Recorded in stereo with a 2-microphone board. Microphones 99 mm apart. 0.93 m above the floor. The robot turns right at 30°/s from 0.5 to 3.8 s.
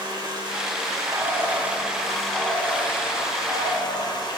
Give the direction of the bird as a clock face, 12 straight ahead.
1 o'clock.